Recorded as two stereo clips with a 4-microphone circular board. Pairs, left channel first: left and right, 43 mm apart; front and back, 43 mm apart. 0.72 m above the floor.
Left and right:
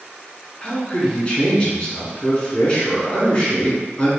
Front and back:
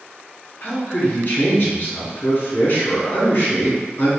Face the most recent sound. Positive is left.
turn(degrees=35)